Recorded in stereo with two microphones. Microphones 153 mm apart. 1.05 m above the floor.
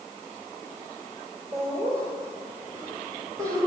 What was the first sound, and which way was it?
Laughter, 20° right (ahead or behind).